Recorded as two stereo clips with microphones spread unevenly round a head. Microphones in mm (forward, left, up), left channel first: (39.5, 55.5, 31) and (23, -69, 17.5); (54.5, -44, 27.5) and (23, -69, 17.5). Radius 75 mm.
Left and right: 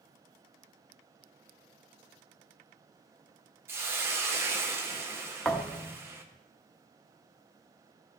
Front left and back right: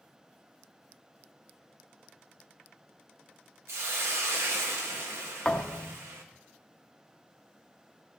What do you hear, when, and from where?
3.7 s a hiss: 175° right, 0.7 m
5.5 s a thud: 5° left, 0.8 m